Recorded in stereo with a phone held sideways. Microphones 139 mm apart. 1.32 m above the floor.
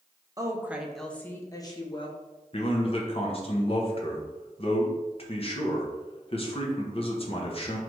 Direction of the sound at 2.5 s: 45° left (ahead or behind).